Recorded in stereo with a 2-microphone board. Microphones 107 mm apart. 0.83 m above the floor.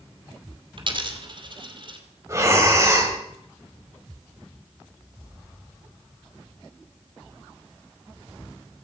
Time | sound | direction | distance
0.8 | a dropped coin | 50° right (ahead or behind) | 2 m
2.3 | breathing | 25° right (ahead or behind) | 3.5 m